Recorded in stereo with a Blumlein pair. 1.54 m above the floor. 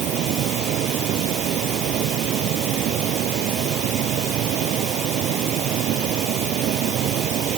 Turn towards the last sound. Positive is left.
turn(degrees=-35)